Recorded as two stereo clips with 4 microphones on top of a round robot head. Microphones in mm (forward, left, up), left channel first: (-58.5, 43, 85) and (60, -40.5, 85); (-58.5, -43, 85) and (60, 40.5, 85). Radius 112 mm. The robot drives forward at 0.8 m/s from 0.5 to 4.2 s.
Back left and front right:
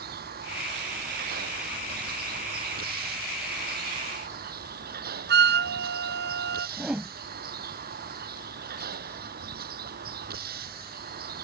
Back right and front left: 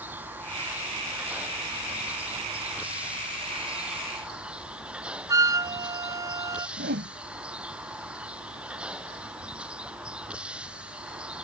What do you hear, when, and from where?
0.0 s a vehicle: 45° right; by 11.4 s 50° right
5.3 s a flute: 35° right
6.8 s a whoosh: 50° left